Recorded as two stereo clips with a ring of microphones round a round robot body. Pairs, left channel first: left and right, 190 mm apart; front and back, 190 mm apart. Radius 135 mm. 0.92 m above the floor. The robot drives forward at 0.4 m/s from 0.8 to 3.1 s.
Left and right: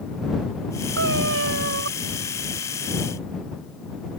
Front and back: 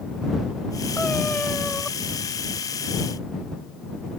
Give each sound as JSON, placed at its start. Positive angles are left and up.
{"t": 1.0, "sound": "a cat meowing", "azimuth_deg": -85}